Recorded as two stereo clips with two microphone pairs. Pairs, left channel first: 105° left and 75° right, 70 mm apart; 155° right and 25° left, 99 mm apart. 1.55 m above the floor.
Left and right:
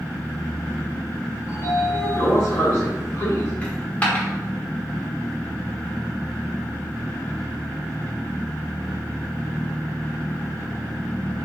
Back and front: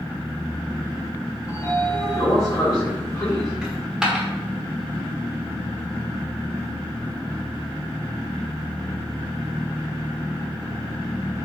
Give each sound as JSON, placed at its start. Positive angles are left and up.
{"t": 1.5, "sound": "a sliding door", "azimuth_deg": 150, "distance_m": 1.5}
{"t": 3.6, "sound": "a dropped coin", "azimuth_deg": 100, "distance_m": 1.2}